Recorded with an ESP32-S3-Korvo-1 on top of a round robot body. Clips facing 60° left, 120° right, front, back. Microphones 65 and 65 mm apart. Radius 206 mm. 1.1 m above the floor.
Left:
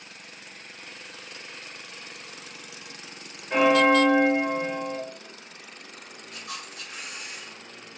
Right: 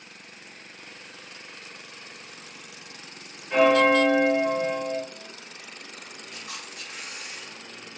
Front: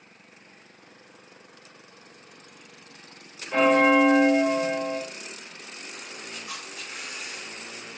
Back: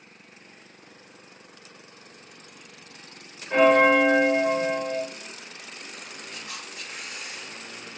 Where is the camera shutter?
130° right, 2.0 m.